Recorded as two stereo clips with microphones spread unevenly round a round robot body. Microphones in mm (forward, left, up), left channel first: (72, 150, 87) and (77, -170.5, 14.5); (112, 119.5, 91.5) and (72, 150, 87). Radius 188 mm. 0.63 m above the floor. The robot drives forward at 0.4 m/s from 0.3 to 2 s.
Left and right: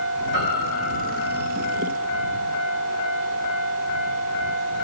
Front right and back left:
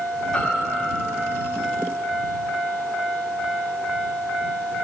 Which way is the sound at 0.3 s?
30° left.